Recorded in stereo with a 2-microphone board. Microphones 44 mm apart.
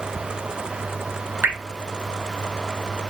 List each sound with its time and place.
1.4 s dripping: 50° right (ahead or behind), 0.6 m